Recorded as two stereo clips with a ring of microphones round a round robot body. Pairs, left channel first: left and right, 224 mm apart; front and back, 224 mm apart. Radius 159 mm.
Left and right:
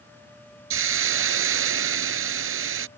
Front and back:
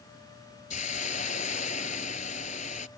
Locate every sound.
0.7 s a hiss: 65° right